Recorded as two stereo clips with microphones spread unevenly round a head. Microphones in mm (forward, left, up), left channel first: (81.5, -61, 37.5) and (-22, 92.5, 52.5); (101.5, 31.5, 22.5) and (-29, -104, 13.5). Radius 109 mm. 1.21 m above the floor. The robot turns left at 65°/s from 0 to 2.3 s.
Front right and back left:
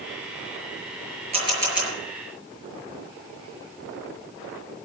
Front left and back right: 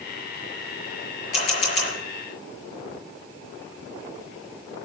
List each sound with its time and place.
1.3 s a camera shutter: 70° left, 6.5 m; by 1.9 s 30° left, 6.5 m